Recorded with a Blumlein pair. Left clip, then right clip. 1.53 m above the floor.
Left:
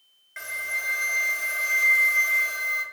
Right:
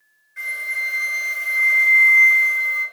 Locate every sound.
0.4 s a flute: 30° left, 0.7 m